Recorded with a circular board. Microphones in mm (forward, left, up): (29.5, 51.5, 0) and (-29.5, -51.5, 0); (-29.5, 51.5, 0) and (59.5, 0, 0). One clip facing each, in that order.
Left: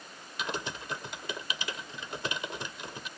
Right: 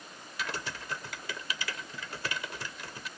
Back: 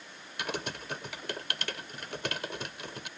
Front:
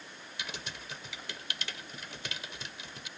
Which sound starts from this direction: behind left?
Typing on a keyboard, at 0.4 s.